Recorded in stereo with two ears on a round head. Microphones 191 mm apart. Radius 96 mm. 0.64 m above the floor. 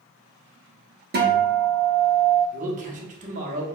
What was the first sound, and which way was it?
A guitar, 45° right (ahead or behind).